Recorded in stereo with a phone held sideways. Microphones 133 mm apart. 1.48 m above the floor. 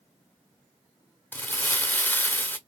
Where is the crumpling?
15° left (ahead or behind), 0.9 m.